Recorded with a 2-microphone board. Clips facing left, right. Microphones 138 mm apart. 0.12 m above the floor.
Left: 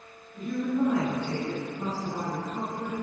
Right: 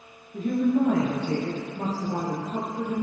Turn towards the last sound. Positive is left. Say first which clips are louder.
# right 5 dB
turn(degrees=-80)